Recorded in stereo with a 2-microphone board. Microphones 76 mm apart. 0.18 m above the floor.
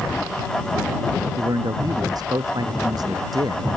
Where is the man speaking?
60° right (ahead or behind).